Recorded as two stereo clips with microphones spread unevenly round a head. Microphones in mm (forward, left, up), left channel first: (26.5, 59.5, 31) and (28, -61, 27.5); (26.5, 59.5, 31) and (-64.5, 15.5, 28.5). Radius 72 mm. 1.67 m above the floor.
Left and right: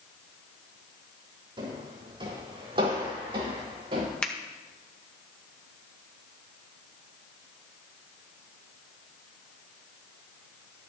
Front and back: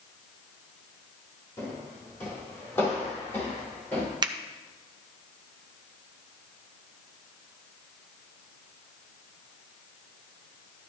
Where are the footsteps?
40° right, 4.5 m; by 4.1 s 45° right, 6 m.